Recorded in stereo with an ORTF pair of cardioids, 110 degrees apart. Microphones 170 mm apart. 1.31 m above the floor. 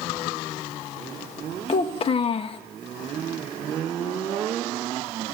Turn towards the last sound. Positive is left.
turn(degrees=35)